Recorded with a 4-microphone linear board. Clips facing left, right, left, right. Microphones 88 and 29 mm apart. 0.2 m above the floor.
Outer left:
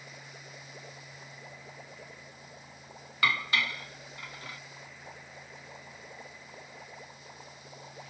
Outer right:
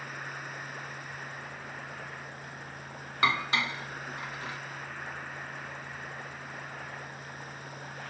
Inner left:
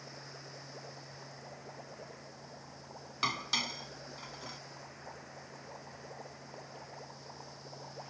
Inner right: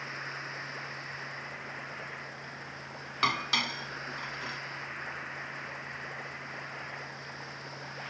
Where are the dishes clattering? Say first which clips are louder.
Outer right 2 dB, inner right 5 dB; 25° right (ahead or behind).